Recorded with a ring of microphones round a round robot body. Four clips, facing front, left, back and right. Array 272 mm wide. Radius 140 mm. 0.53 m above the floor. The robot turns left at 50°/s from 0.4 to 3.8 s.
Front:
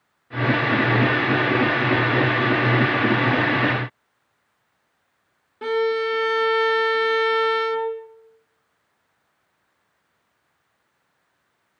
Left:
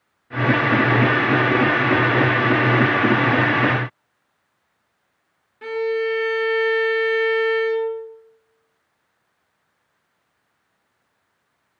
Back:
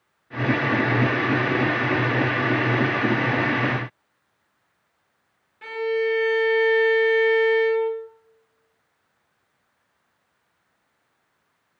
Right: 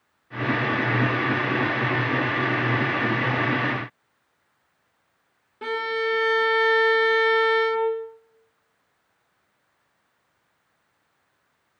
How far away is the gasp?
No gasp in this recording.